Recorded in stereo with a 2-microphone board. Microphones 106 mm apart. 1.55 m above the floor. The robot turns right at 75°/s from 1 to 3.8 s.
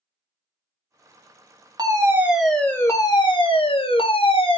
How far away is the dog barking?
No dog barking in this recording.